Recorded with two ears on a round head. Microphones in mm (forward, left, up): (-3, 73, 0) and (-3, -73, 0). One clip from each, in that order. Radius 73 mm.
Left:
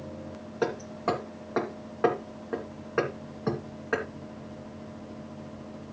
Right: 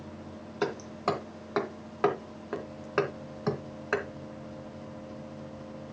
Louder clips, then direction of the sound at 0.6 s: Left 1 dB; 70° right (ahead or behind).